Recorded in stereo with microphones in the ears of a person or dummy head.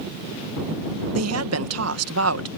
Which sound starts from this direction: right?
A woman speaking, at 1.1 s.